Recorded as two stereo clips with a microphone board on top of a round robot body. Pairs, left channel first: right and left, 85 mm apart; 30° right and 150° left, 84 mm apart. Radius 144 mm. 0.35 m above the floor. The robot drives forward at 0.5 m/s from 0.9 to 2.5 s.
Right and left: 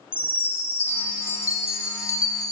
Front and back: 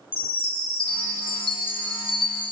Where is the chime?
25° right, 1.6 m; by 2.5 s 50° right, 1.0 m.